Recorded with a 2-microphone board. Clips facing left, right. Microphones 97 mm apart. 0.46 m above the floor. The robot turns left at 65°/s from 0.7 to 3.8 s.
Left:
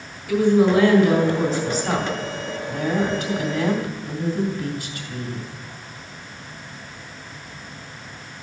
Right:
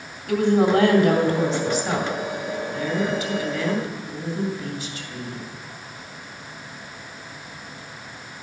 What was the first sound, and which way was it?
A woman speaking, 95° right.